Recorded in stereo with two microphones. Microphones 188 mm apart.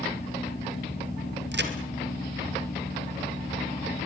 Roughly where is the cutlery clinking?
No cutlery clinking in this recording.